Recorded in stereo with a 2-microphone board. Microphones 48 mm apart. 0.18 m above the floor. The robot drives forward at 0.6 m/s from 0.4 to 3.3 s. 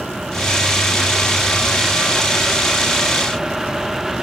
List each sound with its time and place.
Only background noise.